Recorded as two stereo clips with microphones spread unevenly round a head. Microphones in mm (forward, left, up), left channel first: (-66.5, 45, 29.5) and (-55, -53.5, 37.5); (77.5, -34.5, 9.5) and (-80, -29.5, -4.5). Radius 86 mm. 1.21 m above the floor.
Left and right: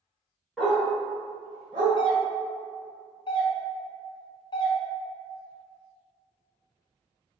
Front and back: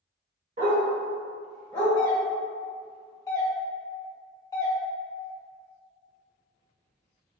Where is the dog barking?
170° right, 1.0 m; by 1.9 s 65° right, 1.2 m.